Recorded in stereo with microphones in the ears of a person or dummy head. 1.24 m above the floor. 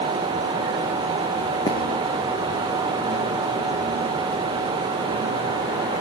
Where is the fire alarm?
I don't hear a fire alarm.